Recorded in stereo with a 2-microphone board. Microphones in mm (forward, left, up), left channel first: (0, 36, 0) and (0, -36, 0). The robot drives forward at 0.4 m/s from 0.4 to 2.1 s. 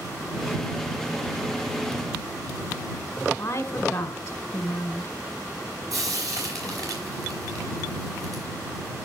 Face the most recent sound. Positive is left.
turn(degrees=-55)  # may be behind; listen again after turning